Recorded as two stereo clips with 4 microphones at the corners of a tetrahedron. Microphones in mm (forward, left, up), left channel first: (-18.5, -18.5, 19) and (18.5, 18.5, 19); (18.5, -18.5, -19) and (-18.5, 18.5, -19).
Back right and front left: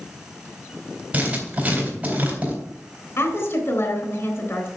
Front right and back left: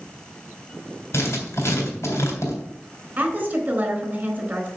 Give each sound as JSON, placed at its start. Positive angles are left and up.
{"t": 1.1, "sound": "writing", "azimuth_deg": -20, "distance_m": 3.5}
{"t": 3.2, "sound": "a woman speaking", "azimuth_deg": -170, "distance_m": 3.5}